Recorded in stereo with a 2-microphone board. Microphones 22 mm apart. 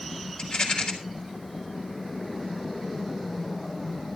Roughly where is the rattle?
Left.